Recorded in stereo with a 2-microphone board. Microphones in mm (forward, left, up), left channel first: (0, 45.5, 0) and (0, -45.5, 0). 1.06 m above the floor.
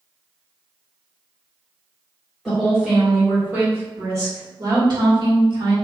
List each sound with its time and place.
2.5 s a woman speaking: centre (ahead or behind), 1.8 m; by 5.7 s 65° right (ahead or behind), 1.7 m